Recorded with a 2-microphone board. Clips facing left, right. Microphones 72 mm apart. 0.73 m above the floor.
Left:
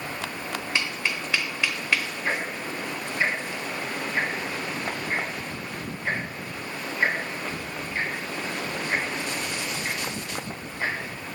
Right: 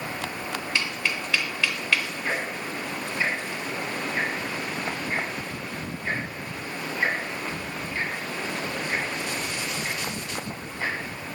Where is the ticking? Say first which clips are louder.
Left 1 dB; 25° left (ahead or behind), 3 m.